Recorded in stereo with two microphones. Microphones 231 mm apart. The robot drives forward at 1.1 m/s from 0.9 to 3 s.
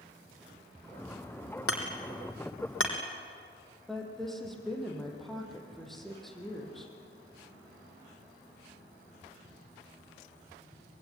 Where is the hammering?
70° left (ahead or behind), 3.5 m; by 3.0 s 60° left (ahead or behind), 3.5 m.